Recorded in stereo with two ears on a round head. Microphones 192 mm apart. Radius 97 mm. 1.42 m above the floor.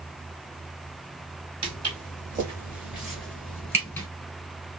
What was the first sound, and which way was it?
Footsteps, 25° right (ahead or behind).